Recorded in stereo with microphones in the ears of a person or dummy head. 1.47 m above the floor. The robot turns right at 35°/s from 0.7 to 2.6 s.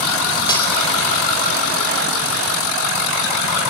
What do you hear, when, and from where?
0.5 s cutlery clinking: 30° left (ahead or behind), 4.5 m